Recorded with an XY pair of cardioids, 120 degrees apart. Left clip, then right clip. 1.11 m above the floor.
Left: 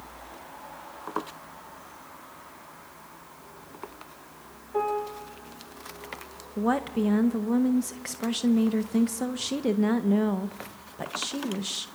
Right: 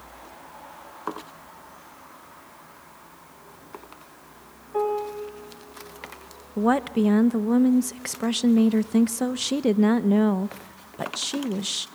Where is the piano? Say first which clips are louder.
Right 2 dB; 5° right, 5 m.